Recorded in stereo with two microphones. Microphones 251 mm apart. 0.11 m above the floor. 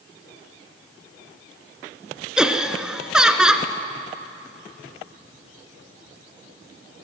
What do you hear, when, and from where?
2.4 s laughter: 5° right (ahead or behind), 1.1 m